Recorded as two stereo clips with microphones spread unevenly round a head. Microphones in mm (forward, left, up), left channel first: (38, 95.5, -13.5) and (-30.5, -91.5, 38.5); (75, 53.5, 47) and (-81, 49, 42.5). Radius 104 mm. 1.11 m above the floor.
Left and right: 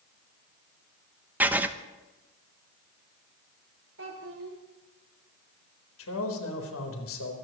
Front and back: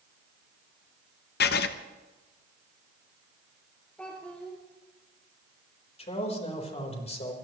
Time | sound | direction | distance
1.4 | writing | 25° right | 0.7 m
4.0 | a child speaking | 80° right | 2.5 m
6.0 | a man speaking | 50° left | 4 m